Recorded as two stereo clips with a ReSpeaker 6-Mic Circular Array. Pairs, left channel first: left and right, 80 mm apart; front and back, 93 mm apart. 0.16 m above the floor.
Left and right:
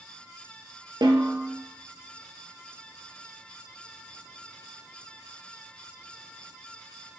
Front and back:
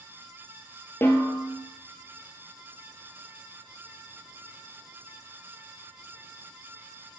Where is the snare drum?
65° right, 1.1 m.